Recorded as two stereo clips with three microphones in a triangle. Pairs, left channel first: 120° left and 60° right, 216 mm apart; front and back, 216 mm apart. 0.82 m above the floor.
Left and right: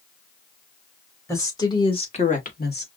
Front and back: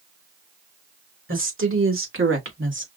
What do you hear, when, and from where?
1.3 s a woman speaking: 160° right, 2.5 m; by 2.9 s 155° left, 1.6 m